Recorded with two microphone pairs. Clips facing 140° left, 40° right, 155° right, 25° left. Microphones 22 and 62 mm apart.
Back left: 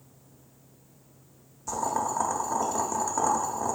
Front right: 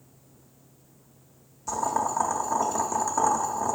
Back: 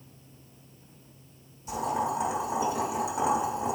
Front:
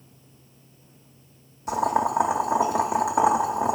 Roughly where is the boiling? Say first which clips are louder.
Front right 2 dB, front 6 dB; ahead left.